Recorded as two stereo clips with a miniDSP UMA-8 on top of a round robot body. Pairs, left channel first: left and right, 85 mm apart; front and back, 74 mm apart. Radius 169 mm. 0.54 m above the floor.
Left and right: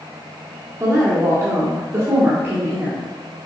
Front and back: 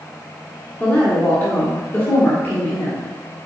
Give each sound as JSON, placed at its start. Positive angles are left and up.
{"t": 0.8, "sound": "a woman speaking", "azimuth_deg": -50, "distance_m": 1.5}